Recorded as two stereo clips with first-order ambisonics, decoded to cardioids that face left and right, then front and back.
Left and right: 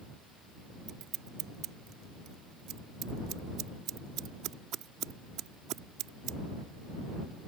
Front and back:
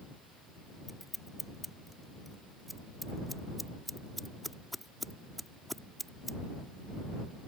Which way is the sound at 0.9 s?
90° right.